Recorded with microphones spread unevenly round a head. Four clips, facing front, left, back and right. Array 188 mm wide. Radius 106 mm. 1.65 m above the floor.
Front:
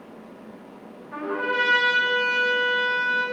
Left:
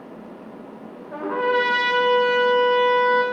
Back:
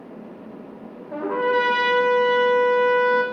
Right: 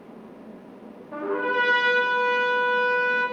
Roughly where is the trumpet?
Behind.